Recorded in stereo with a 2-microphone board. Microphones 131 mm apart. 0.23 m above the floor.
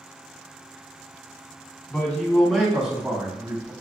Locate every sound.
1.9 s a man speaking: 15° left (ahead or behind), 1.4 m; by 3.7 s 25° right (ahead or behind), 1.1 m